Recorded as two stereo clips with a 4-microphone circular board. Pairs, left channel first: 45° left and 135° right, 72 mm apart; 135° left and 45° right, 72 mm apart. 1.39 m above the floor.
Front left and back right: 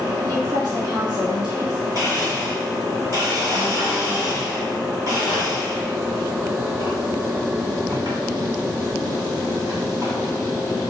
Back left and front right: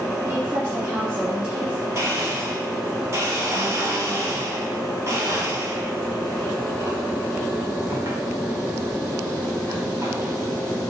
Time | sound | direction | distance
0.3 | a woman speaking | 90° right | 3.5 m
1.9 | a blender | 95° right | 3 m